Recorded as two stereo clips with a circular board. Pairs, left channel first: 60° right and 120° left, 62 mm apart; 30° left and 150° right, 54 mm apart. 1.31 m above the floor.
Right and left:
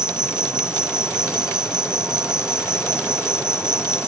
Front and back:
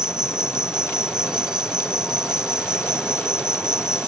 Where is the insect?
170° left.